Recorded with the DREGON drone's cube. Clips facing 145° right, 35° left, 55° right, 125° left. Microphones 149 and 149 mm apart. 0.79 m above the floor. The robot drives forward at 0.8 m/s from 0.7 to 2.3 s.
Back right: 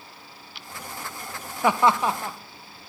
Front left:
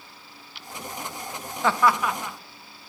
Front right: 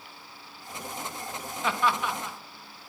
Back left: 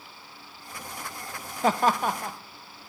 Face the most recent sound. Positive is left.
turn(degrees=165)